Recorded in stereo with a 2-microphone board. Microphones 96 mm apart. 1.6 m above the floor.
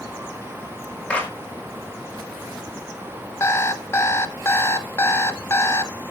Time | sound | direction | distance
1.1 | a clap | 10° left (ahead or behind) | 4.5 m
3.4 | an alarm clock | 30° left (ahead or behind) | 0.8 m